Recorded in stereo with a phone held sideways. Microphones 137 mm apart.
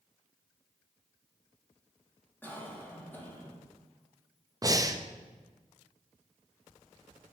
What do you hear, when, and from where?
2.4 s a cough: 15° left (ahead or behind), 3 m
4.6 s breathing: 25° right (ahead or behind), 0.7 m